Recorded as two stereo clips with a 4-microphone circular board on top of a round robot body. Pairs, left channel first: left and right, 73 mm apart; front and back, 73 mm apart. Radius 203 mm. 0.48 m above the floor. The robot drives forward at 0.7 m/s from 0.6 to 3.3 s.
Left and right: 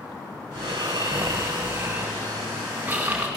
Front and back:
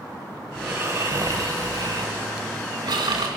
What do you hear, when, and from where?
0.6 s snoring: 115° right, 0.9 m; by 3.3 s 160° right, 2.5 m